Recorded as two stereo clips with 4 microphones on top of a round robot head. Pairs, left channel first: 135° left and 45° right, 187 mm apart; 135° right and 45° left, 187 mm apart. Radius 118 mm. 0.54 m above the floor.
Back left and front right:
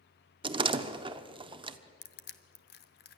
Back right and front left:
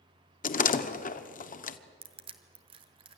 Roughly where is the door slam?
Right.